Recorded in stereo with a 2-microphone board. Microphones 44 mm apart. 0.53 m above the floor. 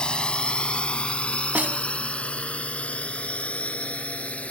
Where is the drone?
20° left (ahead or behind); by 4.5 s 30° left (ahead or behind).